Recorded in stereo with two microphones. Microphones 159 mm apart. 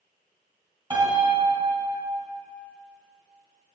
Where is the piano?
30° right (ahead or behind), 2 m.